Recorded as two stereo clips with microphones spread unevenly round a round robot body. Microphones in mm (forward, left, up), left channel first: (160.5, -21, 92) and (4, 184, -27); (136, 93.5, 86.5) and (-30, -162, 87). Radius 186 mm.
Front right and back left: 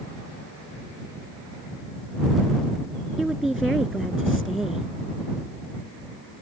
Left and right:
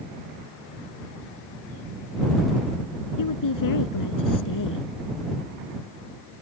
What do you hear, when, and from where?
3.2 s a woman speaking: 35° left